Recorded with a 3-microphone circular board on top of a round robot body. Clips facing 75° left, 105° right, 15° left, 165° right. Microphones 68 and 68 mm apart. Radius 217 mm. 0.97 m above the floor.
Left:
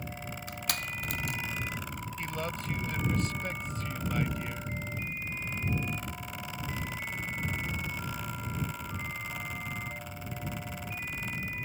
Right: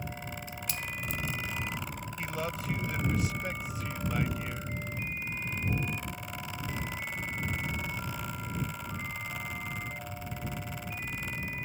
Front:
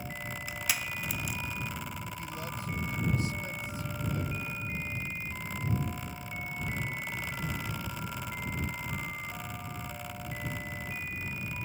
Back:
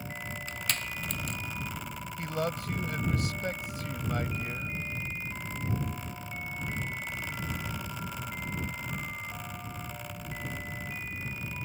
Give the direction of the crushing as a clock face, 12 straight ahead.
9 o'clock.